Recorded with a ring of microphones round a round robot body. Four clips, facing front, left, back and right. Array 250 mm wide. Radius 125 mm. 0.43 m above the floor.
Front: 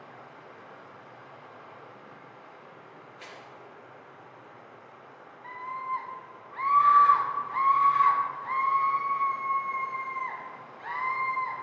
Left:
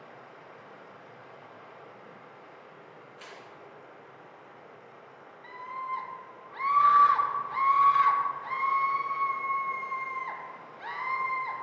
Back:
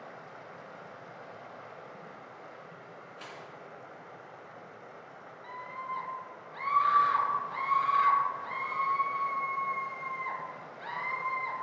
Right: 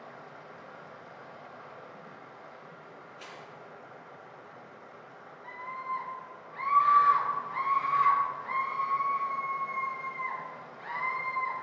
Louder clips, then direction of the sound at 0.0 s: Right 2 dB, back 1 dB; 150° right.